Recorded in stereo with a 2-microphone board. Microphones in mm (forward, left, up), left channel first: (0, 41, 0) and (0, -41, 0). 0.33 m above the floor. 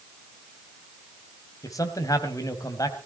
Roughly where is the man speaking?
Left.